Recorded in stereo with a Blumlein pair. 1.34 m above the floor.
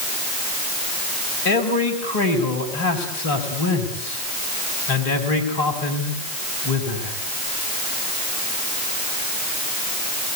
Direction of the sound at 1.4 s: 50° left.